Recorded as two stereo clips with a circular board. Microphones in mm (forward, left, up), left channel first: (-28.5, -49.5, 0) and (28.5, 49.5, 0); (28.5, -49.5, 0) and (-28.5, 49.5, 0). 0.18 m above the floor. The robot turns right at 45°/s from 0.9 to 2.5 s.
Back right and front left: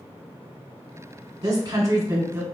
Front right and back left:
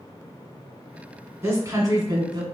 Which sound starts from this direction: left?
A woman speaking, at 1.4 s.